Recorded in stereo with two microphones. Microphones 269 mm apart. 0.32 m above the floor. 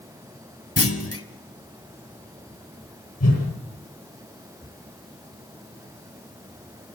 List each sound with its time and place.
0.8 s a clunk: 60° left (ahead or behind), 1.4 m
3.2 s a whoosh: 70° left (ahead or behind), 8.5 m